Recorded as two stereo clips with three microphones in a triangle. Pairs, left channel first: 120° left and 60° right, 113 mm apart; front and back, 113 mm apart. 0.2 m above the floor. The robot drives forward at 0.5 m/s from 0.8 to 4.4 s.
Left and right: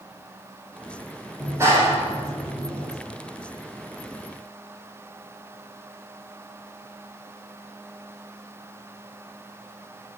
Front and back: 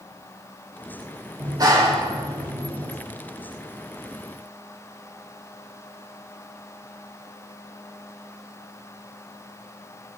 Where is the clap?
125° right, 5.5 m; by 2.9 s 130° right, 6 m.